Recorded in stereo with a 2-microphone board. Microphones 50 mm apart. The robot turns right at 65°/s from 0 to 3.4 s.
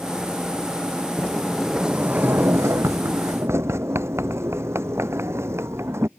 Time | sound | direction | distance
1.2 | a sliding door | 155° left | ?